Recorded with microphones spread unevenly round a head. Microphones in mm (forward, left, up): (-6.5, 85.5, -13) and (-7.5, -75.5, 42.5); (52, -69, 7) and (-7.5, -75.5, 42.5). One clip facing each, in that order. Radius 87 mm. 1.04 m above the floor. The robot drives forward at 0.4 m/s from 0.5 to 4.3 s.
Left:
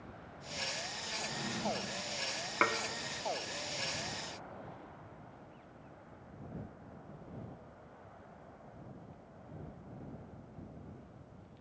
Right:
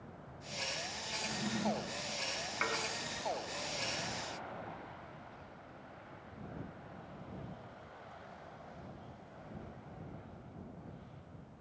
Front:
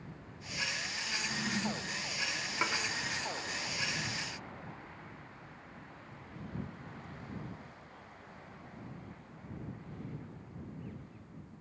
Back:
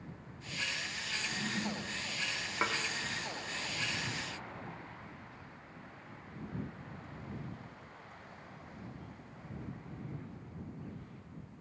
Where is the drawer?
20° right, 7.5 m; by 2.0 s 25° right, 7.5 m.